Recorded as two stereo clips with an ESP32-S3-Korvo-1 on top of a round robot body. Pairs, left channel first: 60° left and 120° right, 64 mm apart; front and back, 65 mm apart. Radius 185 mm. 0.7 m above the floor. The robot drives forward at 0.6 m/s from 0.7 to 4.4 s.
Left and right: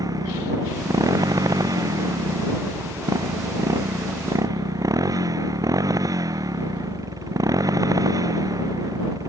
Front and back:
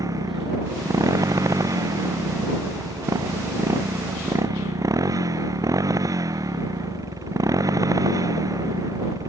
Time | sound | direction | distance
0.0 | a motorcycle | 150° right | ?